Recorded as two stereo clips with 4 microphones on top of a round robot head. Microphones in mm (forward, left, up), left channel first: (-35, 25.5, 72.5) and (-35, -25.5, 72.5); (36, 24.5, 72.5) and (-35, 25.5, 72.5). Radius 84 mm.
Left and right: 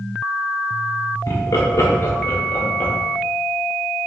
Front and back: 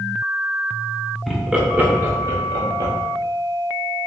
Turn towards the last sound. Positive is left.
turn(degrees=150)